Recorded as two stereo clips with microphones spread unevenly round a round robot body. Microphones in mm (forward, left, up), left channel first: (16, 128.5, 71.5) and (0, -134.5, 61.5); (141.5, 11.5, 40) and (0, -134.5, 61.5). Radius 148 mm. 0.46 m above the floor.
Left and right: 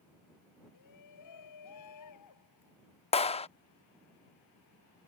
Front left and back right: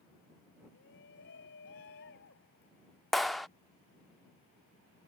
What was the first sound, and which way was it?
A shout, 90° left.